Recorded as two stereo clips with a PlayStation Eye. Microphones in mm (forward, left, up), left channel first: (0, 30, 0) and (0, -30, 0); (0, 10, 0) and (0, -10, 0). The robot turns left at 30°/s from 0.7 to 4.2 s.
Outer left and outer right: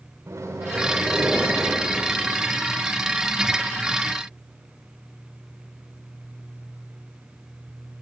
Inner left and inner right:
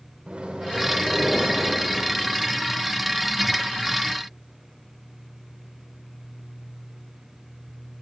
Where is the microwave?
110° right, 1.4 m; by 1.8 s 145° right, 1.4 m.